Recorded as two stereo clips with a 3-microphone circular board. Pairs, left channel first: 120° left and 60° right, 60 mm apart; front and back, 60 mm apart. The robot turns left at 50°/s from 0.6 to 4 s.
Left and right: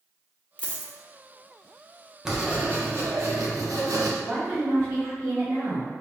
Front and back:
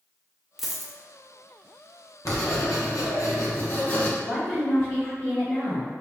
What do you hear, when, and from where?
0.6 s a dropped coin: 105° left, 0.5 m; by 0.9 s 85° left, 0.5 m
2.2 s writing: 20° left, 0.8 m; by 4.1 s 65° right, 0.8 m
4.2 s a woman speaking: 50° right, 1.9 m